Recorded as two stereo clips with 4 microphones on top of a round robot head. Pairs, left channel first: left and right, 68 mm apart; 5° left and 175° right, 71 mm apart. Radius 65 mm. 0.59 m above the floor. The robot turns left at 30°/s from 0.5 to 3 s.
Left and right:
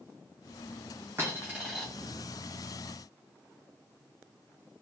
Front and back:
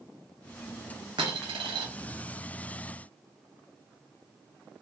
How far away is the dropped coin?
About 1.1 m.